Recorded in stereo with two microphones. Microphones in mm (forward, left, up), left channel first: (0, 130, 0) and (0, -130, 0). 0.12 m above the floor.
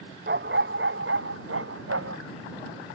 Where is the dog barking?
45° right (ahead or behind); by 2.2 s 65° right (ahead or behind).